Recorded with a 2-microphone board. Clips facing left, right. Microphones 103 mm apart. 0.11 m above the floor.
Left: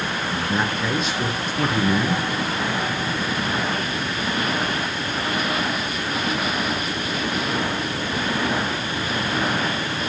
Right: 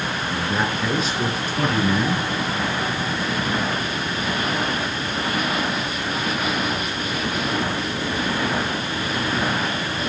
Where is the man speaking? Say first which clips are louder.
Even; centre (ahead or behind), 1.8 m.